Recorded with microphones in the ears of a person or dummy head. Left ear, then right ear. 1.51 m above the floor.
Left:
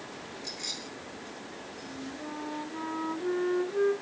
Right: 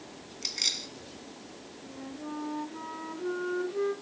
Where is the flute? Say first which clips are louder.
Even; 20° left (ahead or behind), 3.5 m.